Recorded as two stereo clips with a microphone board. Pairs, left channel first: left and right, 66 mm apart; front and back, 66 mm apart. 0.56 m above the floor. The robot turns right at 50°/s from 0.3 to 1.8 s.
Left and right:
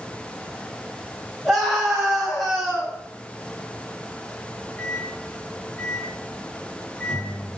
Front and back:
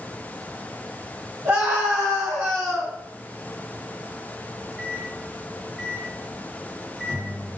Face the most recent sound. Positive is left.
turn(degrees=110)